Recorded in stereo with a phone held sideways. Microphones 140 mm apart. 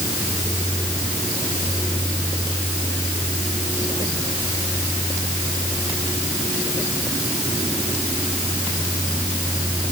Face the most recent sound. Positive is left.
No sound to turn to.